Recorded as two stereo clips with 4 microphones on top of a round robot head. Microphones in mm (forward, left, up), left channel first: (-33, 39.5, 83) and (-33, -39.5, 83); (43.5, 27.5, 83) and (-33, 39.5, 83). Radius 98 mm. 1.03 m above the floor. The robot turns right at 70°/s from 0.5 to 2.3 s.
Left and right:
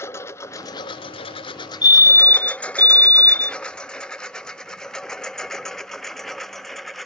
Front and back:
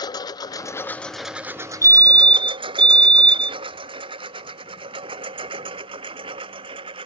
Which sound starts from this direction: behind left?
A fire alarm, at 1.8 s.